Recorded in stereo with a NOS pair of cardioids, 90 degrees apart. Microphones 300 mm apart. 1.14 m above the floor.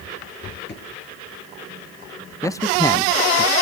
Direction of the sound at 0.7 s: 35° left.